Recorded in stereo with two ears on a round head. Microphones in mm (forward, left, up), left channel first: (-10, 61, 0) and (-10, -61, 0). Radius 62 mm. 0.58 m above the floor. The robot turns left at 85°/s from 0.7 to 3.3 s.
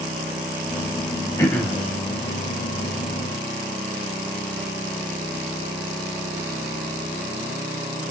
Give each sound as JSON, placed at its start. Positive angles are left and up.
{"t": 1.4, "sound": "throat clearing", "azimuth_deg": 25, "distance_m": 2.5}